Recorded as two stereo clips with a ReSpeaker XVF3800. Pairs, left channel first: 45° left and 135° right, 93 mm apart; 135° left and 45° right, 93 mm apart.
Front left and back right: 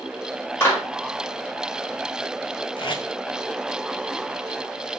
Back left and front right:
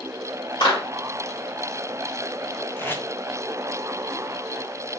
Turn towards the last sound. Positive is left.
turn(degrees=70)